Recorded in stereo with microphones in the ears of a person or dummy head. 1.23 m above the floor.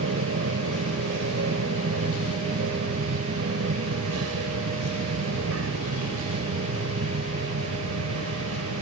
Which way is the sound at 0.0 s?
75° right (ahead or behind).